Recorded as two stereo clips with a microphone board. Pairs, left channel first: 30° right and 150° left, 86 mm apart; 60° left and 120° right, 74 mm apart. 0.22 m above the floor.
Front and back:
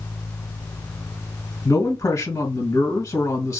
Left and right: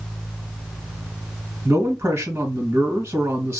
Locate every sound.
1.6 s a man speaking: 75° right, 2.5 m